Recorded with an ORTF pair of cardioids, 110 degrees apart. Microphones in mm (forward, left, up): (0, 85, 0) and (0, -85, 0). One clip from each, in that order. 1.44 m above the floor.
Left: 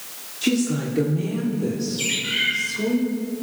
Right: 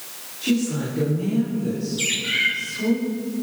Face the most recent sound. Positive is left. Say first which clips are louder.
# right 2 dB
turn(degrees=-10)